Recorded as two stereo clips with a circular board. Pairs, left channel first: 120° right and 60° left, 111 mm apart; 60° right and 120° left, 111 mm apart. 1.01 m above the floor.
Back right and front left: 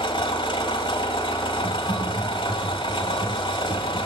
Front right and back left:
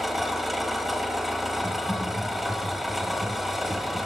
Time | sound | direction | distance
0.0 | an engine running | 150° right | 1.3 m
1.6 | typing on a keyboard | 20° left | 1.3 m